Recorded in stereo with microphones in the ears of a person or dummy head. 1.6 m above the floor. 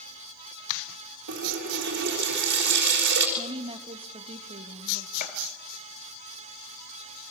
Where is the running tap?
55° right (ahead or behind), 4.5 m.